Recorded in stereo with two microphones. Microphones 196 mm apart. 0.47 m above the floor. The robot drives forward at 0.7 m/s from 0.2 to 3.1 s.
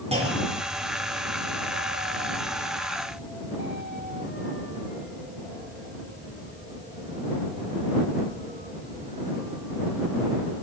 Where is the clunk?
30° right (ahead or behind), 9 m; by 0.8 s 35° right (ahead or behind), 8.5 m.